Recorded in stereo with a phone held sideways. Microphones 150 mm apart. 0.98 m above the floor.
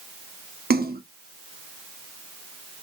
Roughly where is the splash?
Right.